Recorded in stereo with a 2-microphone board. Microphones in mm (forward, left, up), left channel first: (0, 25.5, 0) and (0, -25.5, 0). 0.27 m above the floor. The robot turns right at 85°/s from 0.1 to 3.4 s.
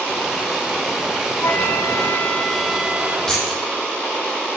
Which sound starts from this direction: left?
A flute, at 1.4 s.